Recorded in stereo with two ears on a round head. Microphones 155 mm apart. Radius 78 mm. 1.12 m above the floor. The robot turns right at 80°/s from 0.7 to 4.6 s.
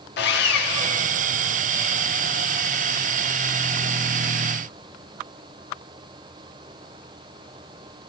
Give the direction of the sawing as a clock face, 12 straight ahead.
9 o'clock.